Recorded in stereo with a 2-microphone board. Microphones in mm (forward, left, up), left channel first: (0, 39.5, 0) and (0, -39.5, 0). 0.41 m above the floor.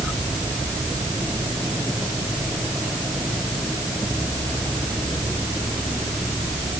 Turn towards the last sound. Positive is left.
No sound to turn to.